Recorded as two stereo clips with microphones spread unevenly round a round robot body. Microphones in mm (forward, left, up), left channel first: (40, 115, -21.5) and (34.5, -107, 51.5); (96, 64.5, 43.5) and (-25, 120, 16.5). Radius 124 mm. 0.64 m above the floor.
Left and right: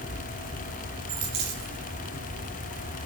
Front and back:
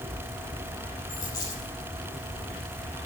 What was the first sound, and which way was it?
A dropped coin, 100° right.